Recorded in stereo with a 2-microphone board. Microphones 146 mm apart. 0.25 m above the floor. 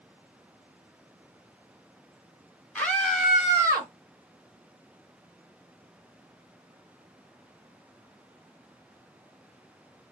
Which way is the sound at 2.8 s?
10° left (ahead or behind).